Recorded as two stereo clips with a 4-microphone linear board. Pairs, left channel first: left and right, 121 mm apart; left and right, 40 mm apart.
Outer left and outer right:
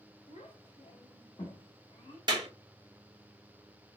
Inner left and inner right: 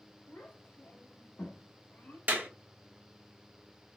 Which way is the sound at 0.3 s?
75° left (ahead or behind).